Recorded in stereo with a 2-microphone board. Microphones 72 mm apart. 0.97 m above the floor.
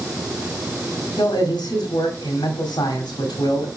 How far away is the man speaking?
About 2 m.